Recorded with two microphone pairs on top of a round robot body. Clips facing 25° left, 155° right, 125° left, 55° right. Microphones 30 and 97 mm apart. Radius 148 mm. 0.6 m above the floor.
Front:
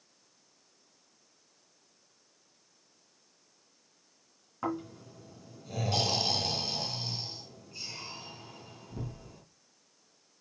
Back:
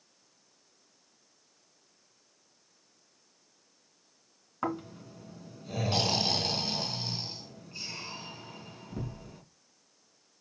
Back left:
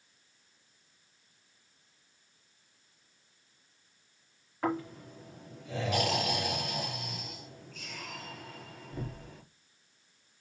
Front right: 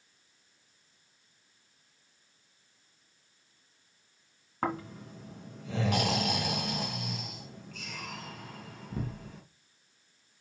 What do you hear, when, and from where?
4.6 s snoring: 90° right, 2.5 m